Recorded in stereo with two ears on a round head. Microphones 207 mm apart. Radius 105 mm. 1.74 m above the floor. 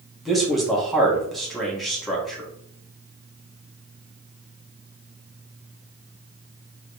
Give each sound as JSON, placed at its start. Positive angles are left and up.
{"t": 0.2, "sound": "a man speaking", "side_deg": 0, "distance_m": 1.3}